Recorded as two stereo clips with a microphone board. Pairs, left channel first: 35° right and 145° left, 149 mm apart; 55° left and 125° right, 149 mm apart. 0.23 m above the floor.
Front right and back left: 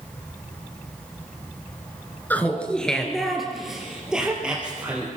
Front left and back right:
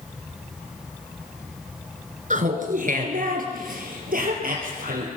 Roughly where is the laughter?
Right.